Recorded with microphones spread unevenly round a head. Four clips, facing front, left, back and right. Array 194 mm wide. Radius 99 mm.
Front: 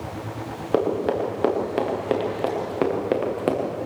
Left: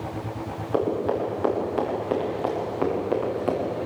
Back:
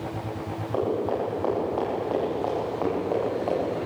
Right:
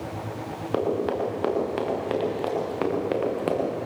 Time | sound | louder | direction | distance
0.7 | running footsteps | left 1 dB, front 4 dB | 10° right | 8 m